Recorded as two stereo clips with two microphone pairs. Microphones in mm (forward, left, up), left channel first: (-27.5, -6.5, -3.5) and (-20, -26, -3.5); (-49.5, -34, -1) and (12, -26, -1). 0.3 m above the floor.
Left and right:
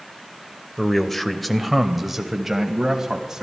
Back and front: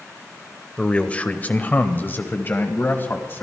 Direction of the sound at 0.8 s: 155° left.